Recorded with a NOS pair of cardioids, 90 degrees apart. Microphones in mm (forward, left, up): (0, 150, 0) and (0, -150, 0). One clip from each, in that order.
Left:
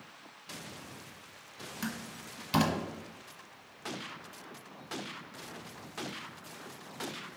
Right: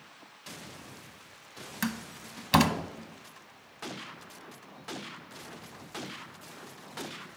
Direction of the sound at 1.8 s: 40° right.